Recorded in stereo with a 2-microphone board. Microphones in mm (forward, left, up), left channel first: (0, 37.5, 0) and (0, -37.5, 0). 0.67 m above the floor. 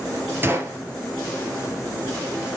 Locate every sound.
0.4 s a gunshot: 30° right (ahead or behind), 2.5 m